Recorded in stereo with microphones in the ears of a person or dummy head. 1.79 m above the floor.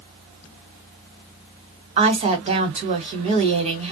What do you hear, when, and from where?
2.0 s a woman speaking: 35° right (ahead or behind), 1.1 m